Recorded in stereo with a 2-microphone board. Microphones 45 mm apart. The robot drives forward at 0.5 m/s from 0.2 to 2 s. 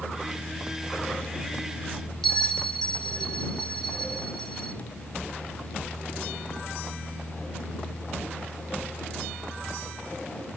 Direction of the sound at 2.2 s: 10° left (ahead or behind).